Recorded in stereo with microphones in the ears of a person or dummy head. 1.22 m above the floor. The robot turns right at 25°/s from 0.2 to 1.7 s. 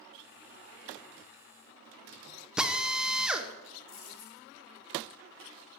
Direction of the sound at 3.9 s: 55° left (ahead or behind).